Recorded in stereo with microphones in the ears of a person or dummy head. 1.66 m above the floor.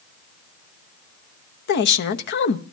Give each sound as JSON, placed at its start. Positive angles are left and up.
{"t": 1.7, "sound": "a woman speaking", "side_deg": 55, "distance_m": 0.8}